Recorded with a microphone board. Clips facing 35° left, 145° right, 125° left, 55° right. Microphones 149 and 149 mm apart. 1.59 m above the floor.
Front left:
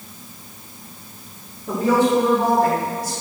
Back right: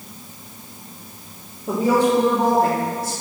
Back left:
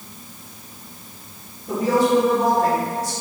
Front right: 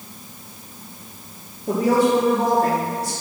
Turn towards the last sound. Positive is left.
turn(degrees=-110)